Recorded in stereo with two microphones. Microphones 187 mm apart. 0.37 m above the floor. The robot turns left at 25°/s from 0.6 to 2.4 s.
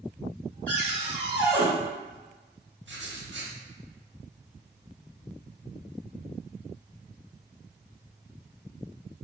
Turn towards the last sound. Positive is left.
turn(degrees=-80)